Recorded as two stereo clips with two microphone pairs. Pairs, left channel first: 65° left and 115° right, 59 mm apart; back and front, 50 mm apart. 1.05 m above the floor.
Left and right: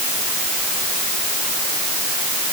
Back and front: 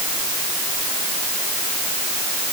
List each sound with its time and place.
Only background noise.